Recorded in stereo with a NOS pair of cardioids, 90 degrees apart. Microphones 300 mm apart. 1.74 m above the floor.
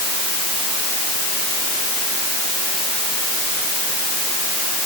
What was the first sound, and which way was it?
Only background noise.